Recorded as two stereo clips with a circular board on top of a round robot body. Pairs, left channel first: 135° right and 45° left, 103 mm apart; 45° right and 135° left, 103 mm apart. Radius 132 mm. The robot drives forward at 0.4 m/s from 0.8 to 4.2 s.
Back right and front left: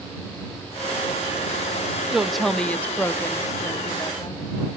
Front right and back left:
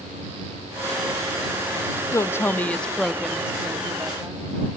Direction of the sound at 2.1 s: 35° right.